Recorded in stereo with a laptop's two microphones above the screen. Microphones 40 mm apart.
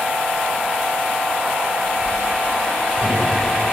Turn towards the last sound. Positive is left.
turn(degrees=-75)  # may be behind; listen again after turning